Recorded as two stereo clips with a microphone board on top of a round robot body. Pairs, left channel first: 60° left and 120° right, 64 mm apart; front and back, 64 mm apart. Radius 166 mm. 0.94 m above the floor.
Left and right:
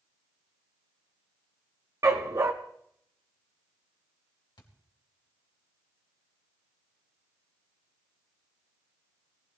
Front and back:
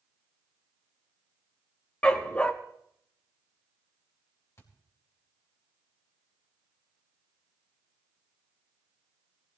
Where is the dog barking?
70° right, 0.7 m.